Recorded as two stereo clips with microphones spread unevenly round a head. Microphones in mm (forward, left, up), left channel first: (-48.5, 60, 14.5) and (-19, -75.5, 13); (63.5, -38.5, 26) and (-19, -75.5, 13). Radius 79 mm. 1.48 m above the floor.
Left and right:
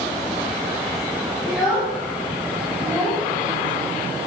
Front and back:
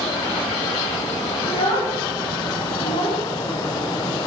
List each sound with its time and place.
1.4 s a child speaking: 15° left, 3 m; by 3.2 s straight ahead, 2.5 m